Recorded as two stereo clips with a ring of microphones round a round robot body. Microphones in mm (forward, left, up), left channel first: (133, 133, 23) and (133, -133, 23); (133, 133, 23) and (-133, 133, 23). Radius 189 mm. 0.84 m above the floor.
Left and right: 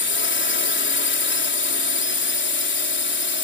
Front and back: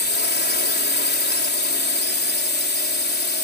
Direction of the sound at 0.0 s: 50° left.